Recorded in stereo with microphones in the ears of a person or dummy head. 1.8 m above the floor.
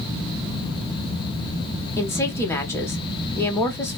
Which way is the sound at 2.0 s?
10° left (ahead or behind).